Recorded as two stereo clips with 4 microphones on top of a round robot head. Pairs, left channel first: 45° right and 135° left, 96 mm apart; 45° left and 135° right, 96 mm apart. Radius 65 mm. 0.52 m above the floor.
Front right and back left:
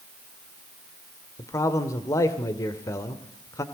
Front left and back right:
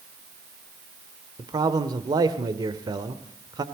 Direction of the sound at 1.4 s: 95° right.